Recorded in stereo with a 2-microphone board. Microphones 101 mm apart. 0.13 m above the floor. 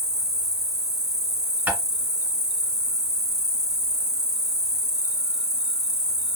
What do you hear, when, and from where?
0.0 s an insect: 40° right (ahead or behind), 0.7 m
1.7 s tapping: 15° right (ahead or behind), 1.7 m